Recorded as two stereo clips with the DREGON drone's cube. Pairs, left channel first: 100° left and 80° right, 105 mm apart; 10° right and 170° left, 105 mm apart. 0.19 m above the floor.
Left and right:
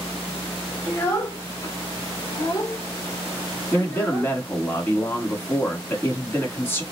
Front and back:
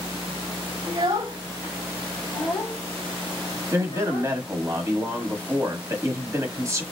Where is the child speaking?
160° left, 1.1 m; by 4.4 s 35° left, 1.7 m.